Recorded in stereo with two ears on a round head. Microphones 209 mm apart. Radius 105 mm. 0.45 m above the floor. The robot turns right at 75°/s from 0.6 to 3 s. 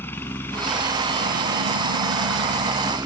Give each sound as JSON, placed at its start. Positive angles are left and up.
{"t": 0.0, "sound": "a helicopter", "azimuth_deg": 170}